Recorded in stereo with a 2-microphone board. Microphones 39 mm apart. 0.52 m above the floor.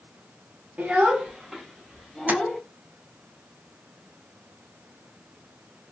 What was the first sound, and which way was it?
A child speaking, 35° right (ahead or behind).